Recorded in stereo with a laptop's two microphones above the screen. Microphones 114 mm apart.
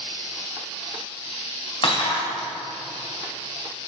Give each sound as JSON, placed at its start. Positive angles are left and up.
{"t": 1.8, "sound": "breaking glass", "side_deg": 50, "distance_m": 2.0}